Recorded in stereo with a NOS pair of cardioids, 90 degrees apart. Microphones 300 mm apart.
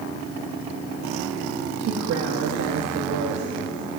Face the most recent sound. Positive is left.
turn(degrees=-65)